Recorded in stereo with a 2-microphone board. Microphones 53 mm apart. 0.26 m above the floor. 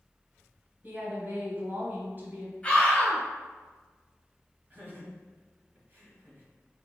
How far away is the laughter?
About 1.3 m.